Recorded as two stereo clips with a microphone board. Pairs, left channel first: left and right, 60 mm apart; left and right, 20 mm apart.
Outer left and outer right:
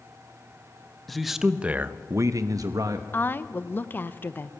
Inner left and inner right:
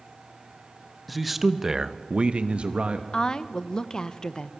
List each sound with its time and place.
1.1 s a man speaking: centre (ahead or behind), 1.3 m; by 3.0 s 75° right (ahead or behind), 1.3 m
3.1 s a woman speaking: 35° left (ahead or behind), 0.9 m